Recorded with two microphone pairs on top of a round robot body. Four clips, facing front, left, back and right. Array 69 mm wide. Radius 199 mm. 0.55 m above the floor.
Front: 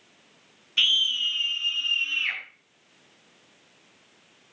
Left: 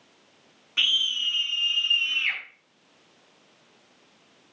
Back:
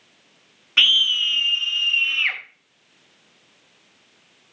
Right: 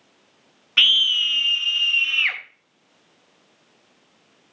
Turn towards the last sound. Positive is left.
turn(degrees=-120)